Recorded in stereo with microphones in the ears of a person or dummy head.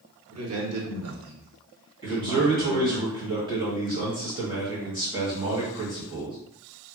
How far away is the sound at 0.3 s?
About 1.2 m.